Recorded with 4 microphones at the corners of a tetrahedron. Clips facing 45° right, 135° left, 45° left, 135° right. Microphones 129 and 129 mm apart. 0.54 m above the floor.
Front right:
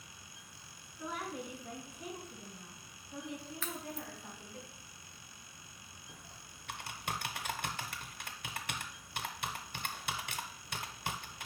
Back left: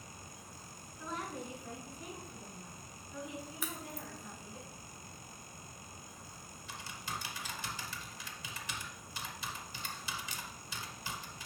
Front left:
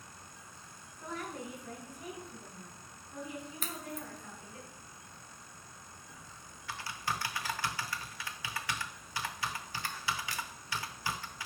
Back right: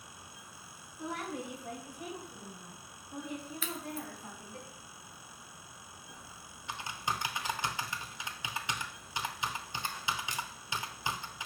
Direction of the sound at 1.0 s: 120° right.